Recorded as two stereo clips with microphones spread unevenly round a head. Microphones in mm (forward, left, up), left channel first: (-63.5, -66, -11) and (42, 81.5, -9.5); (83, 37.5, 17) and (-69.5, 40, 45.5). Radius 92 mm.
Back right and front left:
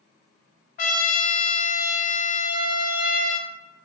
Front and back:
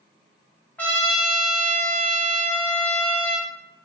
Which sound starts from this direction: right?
A trumpet, at 0.8 s.